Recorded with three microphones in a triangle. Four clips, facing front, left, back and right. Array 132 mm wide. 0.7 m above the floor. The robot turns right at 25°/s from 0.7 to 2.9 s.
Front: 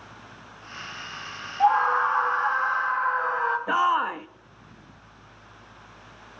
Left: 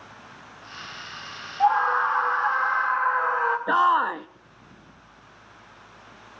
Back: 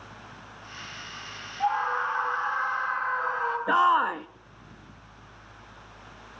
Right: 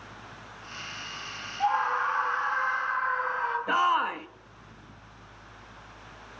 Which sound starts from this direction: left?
A shout, at 3.7 s.